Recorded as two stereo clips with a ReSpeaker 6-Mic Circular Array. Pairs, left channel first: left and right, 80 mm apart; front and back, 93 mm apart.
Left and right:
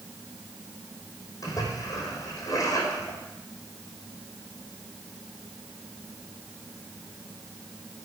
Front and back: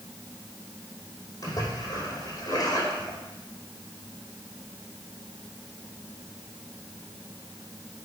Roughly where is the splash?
Ahead left.